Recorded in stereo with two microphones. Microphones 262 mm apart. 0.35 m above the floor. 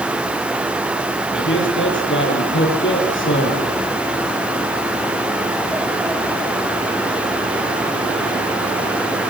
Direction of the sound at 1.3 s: 45° left (ahead or behind).